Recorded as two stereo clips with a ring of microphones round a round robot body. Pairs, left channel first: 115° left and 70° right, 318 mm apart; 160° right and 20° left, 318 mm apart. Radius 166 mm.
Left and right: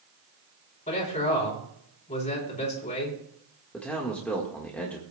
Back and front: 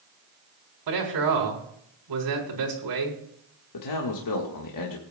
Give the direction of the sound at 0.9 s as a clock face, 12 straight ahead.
11 o'clock.